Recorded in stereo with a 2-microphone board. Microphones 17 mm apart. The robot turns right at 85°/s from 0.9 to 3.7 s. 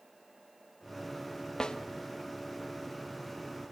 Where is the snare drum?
40° left (ahead or behind), 1.6 m; by 1.8 s 50° left (ahead or behind), 1.6 m.